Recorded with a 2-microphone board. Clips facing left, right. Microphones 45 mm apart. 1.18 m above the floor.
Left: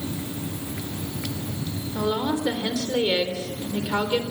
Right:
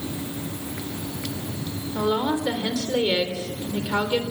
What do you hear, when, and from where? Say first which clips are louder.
1.9 s a woman speaking: right 2 dB; 15° right (ahead or behind), 3.5 m